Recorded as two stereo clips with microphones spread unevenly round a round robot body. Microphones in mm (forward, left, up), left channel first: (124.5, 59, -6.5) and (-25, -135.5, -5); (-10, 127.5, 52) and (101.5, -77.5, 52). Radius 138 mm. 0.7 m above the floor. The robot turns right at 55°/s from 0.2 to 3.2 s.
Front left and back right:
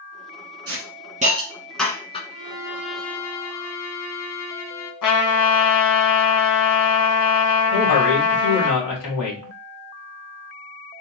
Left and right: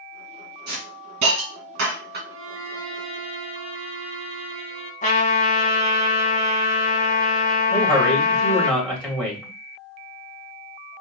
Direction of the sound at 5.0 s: 60° left.